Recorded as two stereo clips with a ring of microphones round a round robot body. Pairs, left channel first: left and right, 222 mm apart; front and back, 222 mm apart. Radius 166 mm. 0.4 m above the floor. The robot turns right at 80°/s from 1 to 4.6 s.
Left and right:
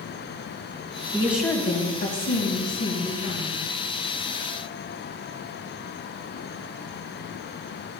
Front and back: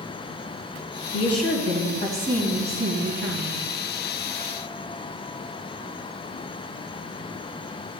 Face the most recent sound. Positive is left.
turn(degrees=-105)